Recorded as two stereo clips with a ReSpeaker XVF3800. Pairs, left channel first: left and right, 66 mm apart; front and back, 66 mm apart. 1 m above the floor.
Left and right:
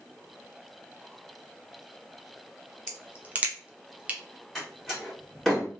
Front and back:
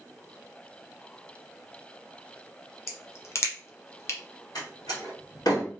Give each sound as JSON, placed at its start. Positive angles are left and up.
{"t": 2.9, "sound": "a crack", "azimuth_deg": -25, "distance_m": 0.6}
{"t": 4.5, "sound": "a door slam", "azimuth_deg": 0, "distance_m": 1.6}